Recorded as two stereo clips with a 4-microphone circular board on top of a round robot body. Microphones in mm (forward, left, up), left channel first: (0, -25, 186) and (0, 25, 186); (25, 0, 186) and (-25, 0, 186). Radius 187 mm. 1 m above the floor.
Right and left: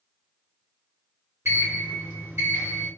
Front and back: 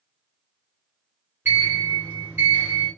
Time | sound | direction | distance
1.4 | a sliding door | 130° left | 1.1 m